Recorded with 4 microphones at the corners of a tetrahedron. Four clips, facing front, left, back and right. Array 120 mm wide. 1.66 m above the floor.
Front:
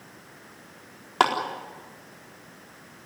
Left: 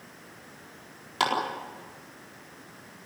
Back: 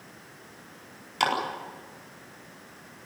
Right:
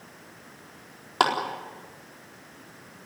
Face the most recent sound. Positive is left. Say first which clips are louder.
# right 4 dB, front 5 dB
turn(degrees=-30)